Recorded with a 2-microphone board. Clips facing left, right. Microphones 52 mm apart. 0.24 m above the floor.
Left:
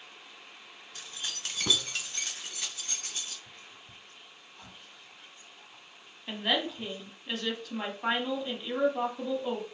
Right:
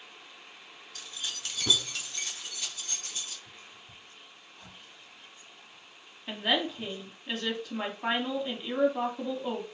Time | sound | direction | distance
0.9 | keys jangling | 25° left (ahead or behind) | 0.8 m
3.5 | whispering | 50° left (ahead or behind) | 2 m
6.3 | a woman speaking | 5° right (ahead or behind) | 1.4 m